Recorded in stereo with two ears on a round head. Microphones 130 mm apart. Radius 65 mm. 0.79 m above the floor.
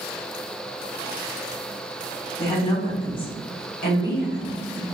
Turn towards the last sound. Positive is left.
turn(degrees=65)  # may be behind; listen again after turning